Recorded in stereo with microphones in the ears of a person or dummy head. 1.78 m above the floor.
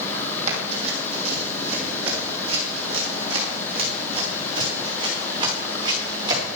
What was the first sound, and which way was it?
Running footsteps, 40° right (ahead or behind).